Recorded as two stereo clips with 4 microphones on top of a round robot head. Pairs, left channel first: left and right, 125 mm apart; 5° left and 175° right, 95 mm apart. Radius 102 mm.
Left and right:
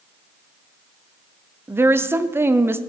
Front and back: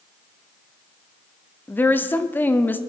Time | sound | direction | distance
1.7 | a woman speaking | 40° right | 0.7 m